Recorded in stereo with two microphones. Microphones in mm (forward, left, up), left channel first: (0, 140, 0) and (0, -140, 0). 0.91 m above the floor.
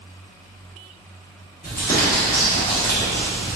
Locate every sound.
1.6 s crumpling: 30° left (ahead or behind), 1.0 m